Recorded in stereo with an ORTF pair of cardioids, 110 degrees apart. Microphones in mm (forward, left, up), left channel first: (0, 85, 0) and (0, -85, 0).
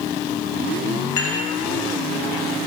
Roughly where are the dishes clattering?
Ahead left.